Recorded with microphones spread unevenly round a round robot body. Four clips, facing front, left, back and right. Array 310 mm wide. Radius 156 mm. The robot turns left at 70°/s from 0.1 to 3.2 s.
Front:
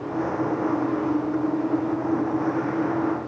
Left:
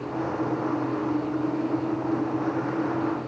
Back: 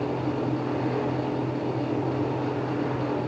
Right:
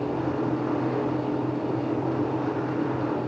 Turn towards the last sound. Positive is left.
No sound to turn to.